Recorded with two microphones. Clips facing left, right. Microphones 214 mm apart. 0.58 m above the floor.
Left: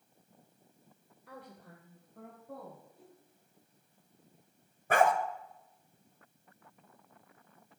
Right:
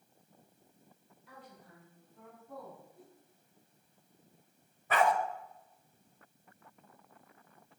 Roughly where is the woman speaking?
Left.